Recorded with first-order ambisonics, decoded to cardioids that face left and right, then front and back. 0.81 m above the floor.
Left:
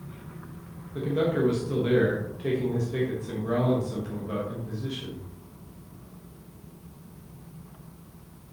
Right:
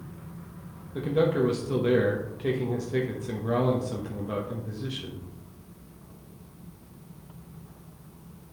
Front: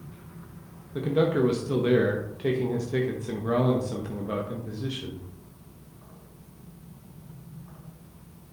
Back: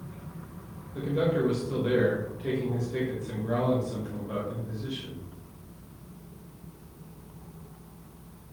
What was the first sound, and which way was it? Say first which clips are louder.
A man speaking: right 2 dB, front 3 dB; 20° right.